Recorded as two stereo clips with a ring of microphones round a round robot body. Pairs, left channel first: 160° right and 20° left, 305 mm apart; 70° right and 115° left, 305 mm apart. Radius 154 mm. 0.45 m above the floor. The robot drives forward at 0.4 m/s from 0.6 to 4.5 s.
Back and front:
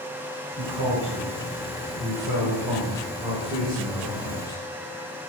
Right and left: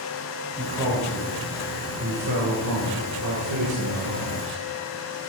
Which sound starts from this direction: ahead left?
A man speaking, at 0.6 s.